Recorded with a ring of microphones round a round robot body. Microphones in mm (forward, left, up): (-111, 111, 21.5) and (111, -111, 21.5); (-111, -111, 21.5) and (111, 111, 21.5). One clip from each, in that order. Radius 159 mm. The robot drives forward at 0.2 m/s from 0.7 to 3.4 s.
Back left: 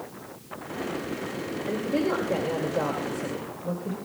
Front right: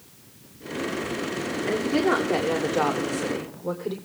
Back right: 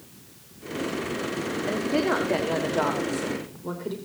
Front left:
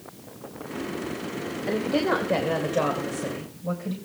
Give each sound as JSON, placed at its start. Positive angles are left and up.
{"t": 1.7, "sound": "a woman speaking", "azimuth_deg": -60, "distance_m": 2.5}